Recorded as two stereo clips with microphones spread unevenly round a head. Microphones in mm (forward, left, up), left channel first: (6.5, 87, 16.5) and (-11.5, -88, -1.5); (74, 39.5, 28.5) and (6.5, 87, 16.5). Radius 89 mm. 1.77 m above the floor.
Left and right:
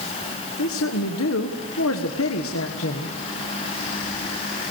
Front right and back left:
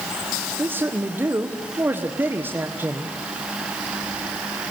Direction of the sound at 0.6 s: 80° left.